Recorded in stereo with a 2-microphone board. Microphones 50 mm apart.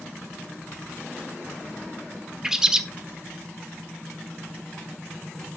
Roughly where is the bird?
Centre.